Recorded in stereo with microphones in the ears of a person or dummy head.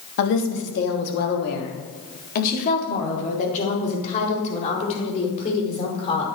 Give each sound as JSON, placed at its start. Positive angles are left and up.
{"t": 0.2, "sound": "a woman speaking", "side_deg": 60, "distance_m": 2.5}